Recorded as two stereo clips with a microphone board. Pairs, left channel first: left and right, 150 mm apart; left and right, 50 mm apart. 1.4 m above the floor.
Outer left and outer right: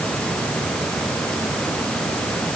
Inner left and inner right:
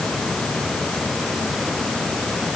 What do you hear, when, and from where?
Only background noise.